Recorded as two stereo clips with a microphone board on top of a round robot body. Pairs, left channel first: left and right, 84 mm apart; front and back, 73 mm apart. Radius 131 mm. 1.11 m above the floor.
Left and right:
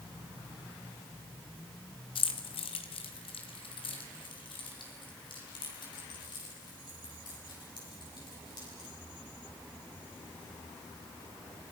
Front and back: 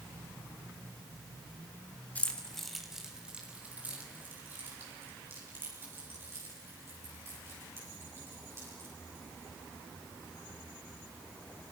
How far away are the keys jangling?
About 1.8 m.